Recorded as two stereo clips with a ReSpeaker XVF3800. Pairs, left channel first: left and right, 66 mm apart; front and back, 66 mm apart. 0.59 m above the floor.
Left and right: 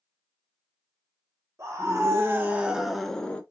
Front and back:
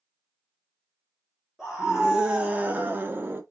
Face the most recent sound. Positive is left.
turn(degrees=150)